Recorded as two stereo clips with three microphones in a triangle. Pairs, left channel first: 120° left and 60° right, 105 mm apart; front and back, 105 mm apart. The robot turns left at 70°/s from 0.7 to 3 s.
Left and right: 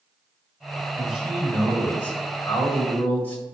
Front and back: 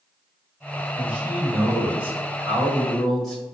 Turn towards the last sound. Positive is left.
turn(degrees=85)